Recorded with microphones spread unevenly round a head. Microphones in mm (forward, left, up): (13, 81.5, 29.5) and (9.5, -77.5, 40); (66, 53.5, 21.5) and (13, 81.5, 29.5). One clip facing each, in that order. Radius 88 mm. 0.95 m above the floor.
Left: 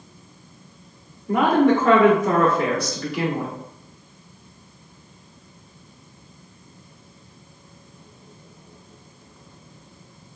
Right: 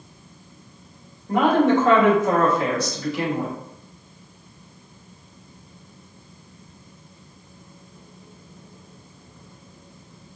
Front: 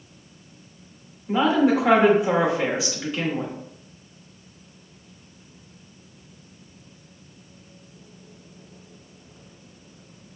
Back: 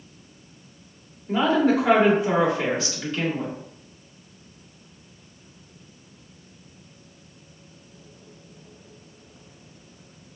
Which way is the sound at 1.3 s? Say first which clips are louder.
Left 1 dB, front 1 dB; 55° left.